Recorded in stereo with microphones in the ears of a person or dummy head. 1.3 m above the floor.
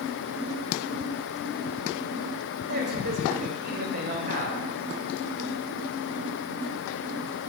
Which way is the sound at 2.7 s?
45° right (ahead or behind).